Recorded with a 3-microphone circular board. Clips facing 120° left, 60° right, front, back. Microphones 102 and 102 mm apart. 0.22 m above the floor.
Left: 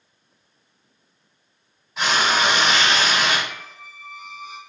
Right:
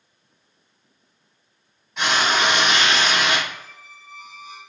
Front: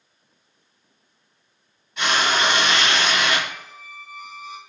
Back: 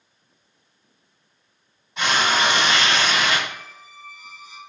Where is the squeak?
135° left, 0.7 m.